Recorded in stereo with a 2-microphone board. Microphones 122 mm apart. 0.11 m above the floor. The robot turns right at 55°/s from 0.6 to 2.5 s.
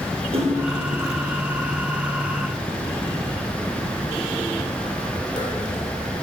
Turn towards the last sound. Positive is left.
turn(degrees=35)  # may be behind; listen again after turning